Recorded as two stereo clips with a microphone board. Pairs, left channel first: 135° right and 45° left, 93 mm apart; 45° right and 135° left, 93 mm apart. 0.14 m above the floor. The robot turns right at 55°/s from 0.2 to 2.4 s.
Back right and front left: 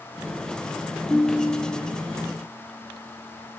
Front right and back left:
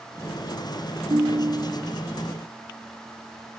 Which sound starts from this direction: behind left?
A ringtone, at 1.1 s.